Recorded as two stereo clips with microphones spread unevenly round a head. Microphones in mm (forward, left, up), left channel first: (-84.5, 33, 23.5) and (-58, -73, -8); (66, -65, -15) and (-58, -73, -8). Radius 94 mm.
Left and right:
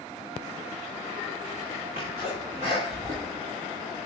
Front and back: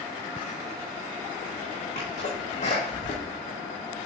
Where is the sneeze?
25° right, 2.0 m.